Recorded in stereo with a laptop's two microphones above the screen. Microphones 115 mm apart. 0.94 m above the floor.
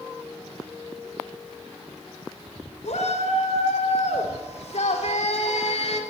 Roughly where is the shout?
Left.